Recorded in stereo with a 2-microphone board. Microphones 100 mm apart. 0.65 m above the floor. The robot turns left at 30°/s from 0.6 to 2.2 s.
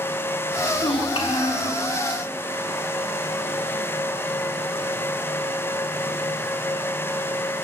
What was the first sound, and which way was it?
A child speaking, 75° left.